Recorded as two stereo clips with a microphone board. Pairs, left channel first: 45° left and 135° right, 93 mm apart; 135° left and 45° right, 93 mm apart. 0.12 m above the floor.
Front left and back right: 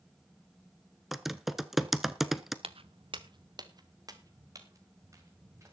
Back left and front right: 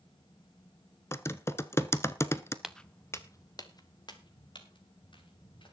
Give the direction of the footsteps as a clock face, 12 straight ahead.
4 o'clock.